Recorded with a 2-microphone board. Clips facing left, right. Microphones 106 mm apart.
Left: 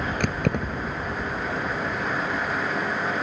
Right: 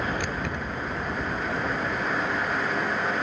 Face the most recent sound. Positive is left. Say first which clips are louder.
# left 5 dB
turn(degrees=60)  # may be behind; listen again after turning